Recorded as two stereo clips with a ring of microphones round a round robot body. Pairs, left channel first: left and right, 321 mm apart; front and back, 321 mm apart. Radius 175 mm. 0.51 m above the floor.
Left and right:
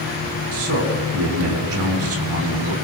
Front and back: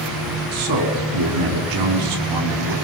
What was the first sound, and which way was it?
A man speaking, 145° right.